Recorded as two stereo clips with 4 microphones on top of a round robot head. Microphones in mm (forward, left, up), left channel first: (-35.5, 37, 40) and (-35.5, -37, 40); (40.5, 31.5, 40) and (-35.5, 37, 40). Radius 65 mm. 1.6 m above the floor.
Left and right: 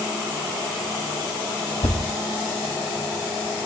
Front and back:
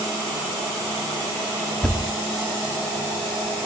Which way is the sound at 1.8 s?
75° left.